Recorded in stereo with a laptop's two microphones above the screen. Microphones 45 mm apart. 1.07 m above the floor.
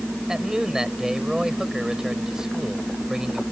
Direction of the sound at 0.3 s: 10° right (ahead or behind).